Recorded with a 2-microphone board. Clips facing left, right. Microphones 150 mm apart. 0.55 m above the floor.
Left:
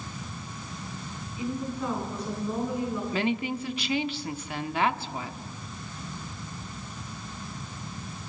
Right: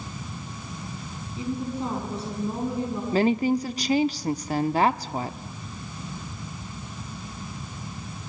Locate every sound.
1.4 s a woman speaking: 30° right (ahead or behind), 6.5 m
3.1 s a woman speaking: 35° right (ahead or behind), 0.7 m